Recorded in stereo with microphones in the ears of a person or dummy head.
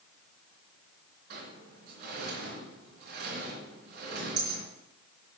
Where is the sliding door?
55° right (ahead or behind), 3 m.